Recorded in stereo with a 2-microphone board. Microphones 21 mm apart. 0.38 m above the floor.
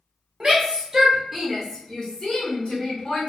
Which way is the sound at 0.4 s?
45° right (ahead or behind).